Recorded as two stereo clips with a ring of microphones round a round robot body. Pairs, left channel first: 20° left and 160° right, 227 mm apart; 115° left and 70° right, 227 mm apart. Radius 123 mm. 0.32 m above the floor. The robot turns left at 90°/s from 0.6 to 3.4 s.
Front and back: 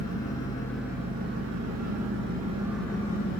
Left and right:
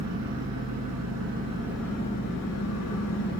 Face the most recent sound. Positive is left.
turn(degrees=55)